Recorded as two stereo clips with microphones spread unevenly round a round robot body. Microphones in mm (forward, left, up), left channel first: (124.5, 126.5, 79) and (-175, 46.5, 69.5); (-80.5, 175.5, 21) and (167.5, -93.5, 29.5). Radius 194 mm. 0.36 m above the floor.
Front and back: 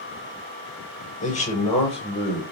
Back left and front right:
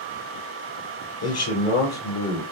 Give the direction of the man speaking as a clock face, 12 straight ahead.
9 o'clock.